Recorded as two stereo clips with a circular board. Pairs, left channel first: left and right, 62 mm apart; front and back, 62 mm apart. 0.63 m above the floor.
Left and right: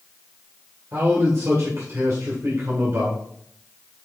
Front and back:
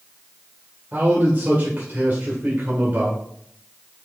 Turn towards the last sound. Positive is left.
turn(degrees=-125)